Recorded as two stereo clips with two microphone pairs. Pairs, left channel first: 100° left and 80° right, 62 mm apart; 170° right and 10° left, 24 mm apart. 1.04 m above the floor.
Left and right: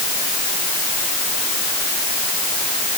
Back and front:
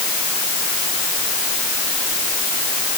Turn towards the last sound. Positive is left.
No sound to turn to.